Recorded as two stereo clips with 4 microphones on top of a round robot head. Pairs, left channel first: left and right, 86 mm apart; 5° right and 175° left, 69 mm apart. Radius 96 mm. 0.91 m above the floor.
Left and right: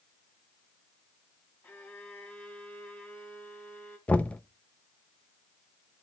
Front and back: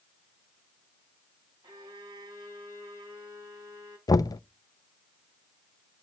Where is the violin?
160° left, 3 m.